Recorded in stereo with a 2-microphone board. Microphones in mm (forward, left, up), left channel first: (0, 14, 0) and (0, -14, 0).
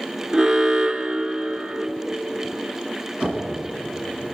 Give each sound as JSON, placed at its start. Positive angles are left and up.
{"t": 0.3, "sound": "an alarm", "side_deg": -25, "distance_m": 0.9}
{"t": 3.2, "sound": "knocking", "side_deg": -35, "distance_m": 5.5}